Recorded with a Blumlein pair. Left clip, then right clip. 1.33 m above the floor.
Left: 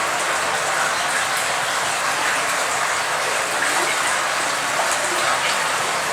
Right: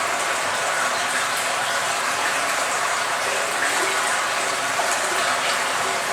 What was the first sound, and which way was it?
Running water, 5° left.